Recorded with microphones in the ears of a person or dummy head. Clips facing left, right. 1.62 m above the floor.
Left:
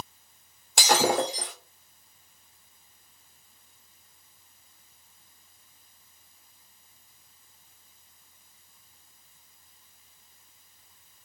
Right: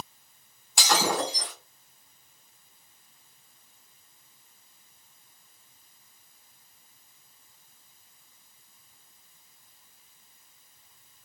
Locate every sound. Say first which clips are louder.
0.8 s breaking glass: left 3 dB; 45° left (ahead or behind), 1.7 m